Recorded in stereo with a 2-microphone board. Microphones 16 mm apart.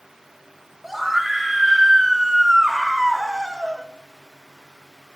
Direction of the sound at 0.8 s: 15° right (ahead or behind).